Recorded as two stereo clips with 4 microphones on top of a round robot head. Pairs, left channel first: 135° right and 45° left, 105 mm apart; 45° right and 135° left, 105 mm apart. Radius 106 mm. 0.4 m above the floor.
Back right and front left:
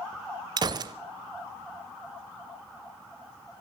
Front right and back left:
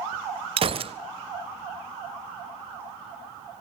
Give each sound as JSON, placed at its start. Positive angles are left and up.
{"t": 0.6, "sound": "a gunshot", "azimuth_deg": 100, "distance_m": 0.7}